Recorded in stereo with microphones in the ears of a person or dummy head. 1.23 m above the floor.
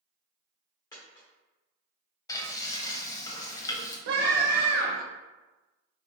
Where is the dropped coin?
25° left (ahead or behind), 1.4 m.